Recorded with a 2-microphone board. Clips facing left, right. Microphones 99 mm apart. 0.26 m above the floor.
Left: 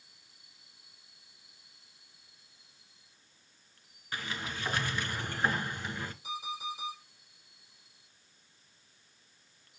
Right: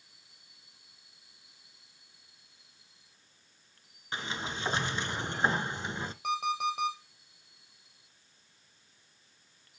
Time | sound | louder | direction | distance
4.1 | a sliding door | right 2 dB | 25° right (ahead or behind) | 0.8 m
6.2 | an alarm clock | right 12 dB | 60° right (ahead or behind) | 5.5 m